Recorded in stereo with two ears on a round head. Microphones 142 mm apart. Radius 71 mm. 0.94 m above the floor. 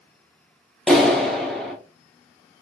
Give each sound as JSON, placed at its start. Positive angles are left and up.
{"t": 0.9, "sound": "a clap", "side_deg": 0, "distance_m": 0.7}